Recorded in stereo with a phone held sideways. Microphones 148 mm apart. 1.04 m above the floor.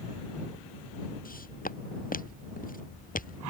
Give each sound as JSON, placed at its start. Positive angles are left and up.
{"t": 1.2, "sound": "footsteps", "side_deg": 80}